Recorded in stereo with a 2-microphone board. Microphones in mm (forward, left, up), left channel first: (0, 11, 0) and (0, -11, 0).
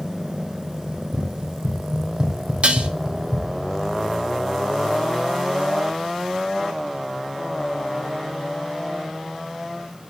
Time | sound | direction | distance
0.9 | running footsteps | 55° right (ahead or behind) | 3.5 m
2.6 | dishes clattering | 60° right (ahead or behind) | 1.5 m